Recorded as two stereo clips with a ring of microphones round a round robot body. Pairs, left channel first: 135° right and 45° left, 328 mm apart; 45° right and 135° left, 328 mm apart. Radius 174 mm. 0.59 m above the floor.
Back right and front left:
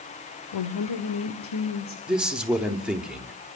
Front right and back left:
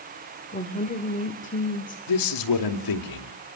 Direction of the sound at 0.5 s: 110° right.